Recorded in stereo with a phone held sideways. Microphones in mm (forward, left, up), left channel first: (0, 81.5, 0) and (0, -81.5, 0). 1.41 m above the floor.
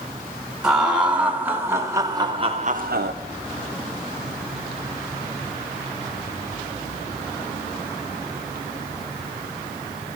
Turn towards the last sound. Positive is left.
turn(degrees=-85)